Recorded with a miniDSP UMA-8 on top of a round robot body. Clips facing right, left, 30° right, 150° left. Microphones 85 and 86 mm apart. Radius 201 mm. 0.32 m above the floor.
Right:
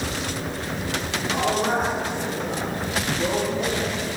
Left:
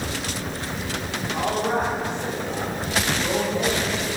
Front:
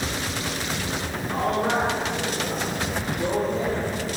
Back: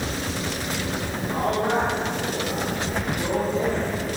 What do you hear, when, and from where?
1.3 s a man speaking: 75° right, 6.5 m; by 3.8 s 60° right, 8 m